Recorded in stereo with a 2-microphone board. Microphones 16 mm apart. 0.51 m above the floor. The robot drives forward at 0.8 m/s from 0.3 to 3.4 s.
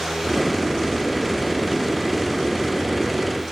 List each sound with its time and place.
Only background noise.